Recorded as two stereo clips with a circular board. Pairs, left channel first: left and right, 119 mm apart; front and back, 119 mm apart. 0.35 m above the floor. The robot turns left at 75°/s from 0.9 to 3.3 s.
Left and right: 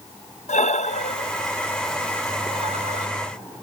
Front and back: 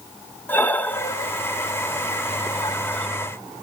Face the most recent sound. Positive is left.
turn(degrees=-105)